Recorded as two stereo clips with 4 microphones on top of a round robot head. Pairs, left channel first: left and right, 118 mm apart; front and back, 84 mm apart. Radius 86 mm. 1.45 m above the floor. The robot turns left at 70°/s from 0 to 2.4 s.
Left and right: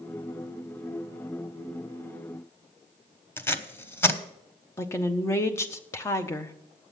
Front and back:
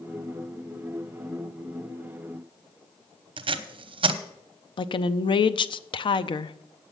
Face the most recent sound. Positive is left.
turn(degrees=20)